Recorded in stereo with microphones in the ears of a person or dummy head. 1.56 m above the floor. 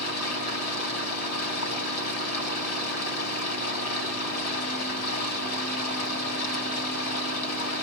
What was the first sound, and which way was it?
Running water, 75° left (ahead or behind).